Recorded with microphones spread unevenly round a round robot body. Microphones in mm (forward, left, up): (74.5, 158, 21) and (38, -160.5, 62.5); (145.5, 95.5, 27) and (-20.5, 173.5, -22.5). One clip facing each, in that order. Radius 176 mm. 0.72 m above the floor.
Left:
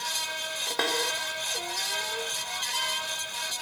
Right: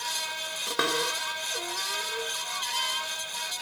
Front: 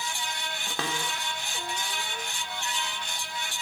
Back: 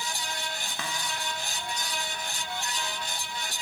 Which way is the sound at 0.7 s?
20° right.